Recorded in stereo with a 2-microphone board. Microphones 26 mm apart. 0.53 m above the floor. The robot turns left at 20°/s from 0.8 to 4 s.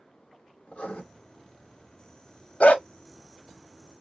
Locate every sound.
0.7 s writing: 65° left (ahead or behind), 2 m
2.6 s a dog barking: 70° left (ahead or behind), 0.8 m; by 2.8 s 75° left (ahead or behind), 0.8 m